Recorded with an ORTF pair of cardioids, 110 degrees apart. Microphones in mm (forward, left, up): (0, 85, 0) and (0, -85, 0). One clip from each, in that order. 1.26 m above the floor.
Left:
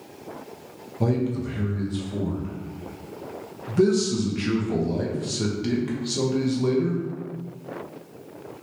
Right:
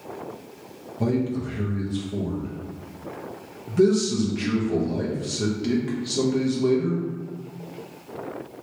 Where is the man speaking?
5° left, 0.9 m.